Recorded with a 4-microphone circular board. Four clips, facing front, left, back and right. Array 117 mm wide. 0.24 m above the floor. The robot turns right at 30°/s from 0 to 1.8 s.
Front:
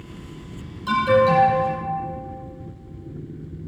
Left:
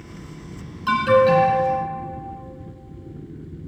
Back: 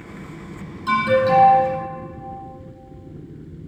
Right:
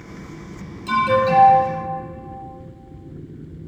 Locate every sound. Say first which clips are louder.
0.9 s an alarm: left 2 dB, even; 90° left, 2.0 m; by 1.6 s 115° left, 2.0 m